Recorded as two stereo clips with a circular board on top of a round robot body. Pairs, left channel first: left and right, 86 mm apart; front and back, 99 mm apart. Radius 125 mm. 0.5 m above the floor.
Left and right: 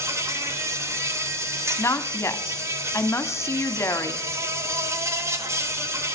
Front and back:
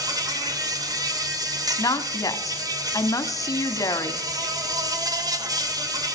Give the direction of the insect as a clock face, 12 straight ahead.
5 o'clock.